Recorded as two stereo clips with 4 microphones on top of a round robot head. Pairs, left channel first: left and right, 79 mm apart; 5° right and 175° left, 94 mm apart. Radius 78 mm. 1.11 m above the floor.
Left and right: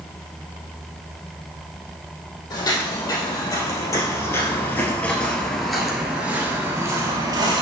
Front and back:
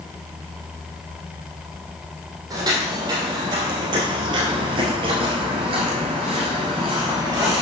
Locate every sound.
2.5 s footsteps: 130° left, 2.5 m; by 7.6 s 115° right, 1.6 m